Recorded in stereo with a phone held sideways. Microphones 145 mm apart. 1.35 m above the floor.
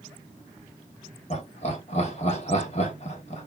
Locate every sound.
1.3 s laughter: 45° left (ahead or behind), 1.3 m